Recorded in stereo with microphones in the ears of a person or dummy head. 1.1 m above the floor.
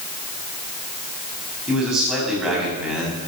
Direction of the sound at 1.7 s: 5° right (ahead or behind).